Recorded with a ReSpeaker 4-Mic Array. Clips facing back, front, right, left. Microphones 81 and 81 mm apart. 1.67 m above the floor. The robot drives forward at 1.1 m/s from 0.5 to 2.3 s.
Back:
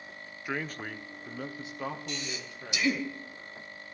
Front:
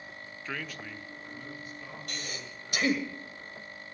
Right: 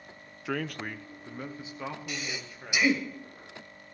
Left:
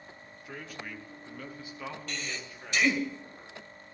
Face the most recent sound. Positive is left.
turn(degrees=-15)